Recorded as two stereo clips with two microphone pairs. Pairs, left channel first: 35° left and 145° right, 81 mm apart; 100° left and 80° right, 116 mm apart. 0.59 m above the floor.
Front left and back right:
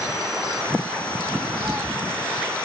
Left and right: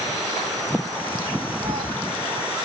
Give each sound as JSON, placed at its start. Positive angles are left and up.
{"t": 1.6, "sound": "a cat meowing", "azimuth_deg": -75, "distance_m": 0.5}